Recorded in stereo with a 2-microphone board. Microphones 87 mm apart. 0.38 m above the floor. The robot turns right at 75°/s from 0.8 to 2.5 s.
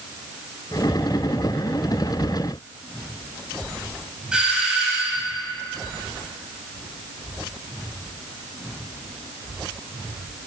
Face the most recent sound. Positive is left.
turn(degrees=-10)  # may be behind; listen again after turning